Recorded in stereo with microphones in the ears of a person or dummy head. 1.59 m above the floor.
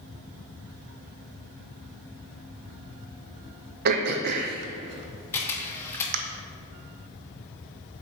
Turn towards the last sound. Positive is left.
turn(degrees=10)  # may be behind; listen again after turning